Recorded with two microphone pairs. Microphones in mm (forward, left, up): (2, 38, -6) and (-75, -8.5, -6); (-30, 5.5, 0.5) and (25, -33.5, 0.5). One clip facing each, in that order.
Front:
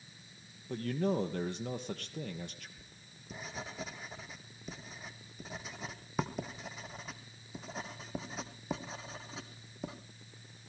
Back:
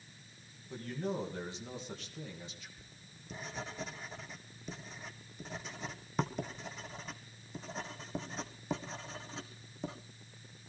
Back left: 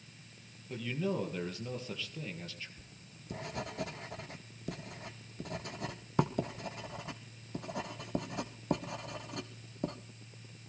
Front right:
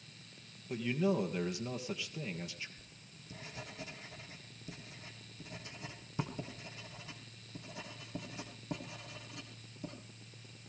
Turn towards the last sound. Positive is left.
turn(degrees=120)